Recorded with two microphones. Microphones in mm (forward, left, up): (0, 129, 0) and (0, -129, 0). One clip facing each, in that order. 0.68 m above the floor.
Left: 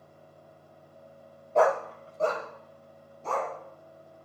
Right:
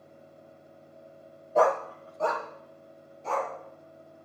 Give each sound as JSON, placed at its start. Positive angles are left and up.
{"t": 1.6, "sound": "a dog barking", "side_deg": -5, "distance_m": 0.7}